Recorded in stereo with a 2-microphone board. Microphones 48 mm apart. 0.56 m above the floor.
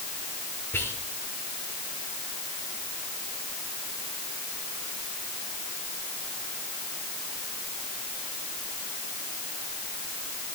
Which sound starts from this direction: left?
Whispering, at 0.7 s.